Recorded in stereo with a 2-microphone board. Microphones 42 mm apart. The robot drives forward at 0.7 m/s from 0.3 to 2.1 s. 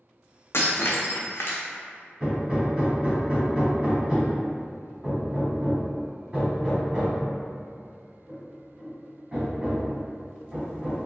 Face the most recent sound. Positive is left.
turn(degrees=-20)  # may be behind; listen again after turning